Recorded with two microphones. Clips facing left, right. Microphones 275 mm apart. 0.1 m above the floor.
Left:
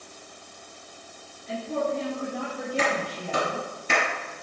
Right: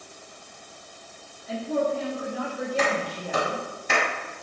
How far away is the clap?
About 1.8 m.